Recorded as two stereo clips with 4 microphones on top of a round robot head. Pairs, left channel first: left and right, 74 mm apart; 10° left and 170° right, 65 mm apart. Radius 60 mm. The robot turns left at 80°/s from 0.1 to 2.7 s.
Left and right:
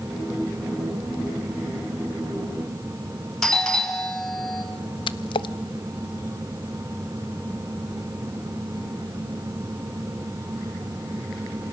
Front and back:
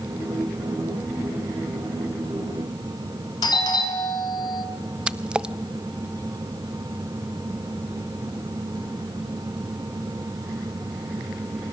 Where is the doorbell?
10° left, 4 m.